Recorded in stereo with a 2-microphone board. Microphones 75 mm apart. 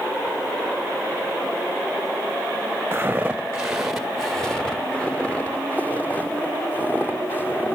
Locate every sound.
2.9 s footsteps: 25° right (ahead or behind), 1.2 m; by 7.8 s 30° left (ahead or behind), 4 m